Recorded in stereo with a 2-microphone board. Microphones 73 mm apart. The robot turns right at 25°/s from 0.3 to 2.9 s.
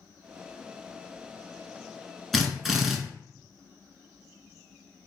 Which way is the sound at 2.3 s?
Centre (ahead or behind).